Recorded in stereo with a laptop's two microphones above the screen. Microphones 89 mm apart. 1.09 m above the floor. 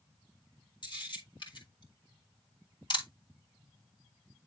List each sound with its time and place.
0.8 s a camera shutter: 65° left (ahead or behind), 2.5 m